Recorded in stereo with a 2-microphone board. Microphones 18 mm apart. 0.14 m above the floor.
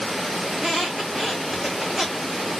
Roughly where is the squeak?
Centre.